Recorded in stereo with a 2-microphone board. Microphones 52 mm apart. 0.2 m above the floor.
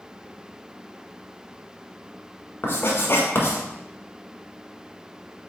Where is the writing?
50° left (ahead or behind), 1.2 m.